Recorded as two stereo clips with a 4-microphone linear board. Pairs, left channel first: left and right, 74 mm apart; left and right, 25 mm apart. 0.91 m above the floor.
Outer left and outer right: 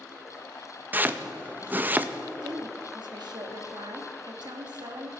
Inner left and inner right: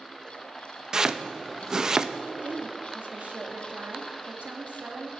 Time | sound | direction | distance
0.9 | chopping | 25° right (ahead or behind) | 0.6 m
2.4 | a woman speaking | 70° right (ahead or behind) | 1.4 m